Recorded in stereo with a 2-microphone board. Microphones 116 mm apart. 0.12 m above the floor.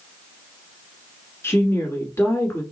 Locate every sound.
1.4 s a woman speaking: 20° left (ahead or behind), 1.3 m